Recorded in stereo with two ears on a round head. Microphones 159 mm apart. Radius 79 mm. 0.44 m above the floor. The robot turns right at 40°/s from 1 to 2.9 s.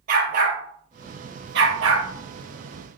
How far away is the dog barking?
About 3 m.